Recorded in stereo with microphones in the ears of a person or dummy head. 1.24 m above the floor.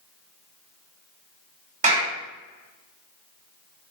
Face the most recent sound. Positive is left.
turn(degrees=-35)  # may be behind; listen again after turning